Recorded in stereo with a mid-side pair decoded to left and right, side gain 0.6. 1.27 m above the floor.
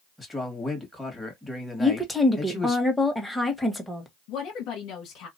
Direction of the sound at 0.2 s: 10° left.